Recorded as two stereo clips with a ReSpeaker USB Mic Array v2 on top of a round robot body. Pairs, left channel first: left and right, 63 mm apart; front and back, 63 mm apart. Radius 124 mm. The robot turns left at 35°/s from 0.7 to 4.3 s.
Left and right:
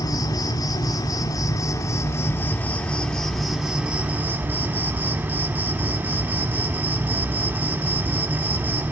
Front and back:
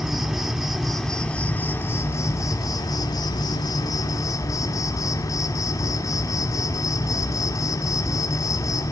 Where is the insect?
100° left, 1.1 m; by 8.9 s 30° right, 1.1 m.